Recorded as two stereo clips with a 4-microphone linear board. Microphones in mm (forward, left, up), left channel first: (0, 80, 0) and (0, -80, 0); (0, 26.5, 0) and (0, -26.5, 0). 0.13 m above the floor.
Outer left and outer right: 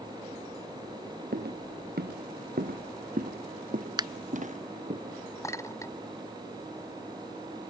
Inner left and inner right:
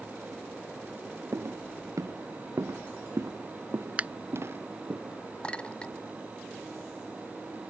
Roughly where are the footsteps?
Right.